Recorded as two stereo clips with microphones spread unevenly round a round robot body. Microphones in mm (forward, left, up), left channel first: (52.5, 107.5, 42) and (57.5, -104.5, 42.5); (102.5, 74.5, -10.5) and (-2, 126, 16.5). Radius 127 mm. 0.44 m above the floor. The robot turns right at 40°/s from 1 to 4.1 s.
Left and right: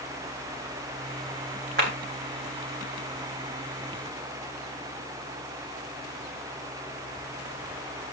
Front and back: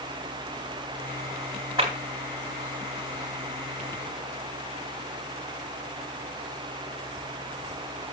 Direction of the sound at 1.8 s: 135° right.